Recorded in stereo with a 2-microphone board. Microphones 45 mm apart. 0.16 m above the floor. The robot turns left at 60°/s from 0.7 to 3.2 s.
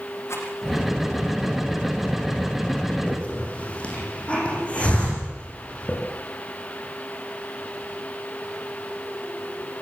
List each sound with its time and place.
0.3 s a rattle: 80° left, 7.5 m
3.1 s a hiss: 35° left (ahead or behind), 9 m; by 6.0 s 25° left (ahead or behind), 9 m